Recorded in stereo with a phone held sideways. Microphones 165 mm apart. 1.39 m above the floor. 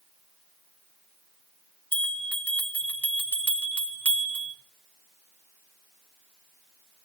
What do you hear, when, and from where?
1.9 s a bell: 10° left (ahead or behind), 1.2 m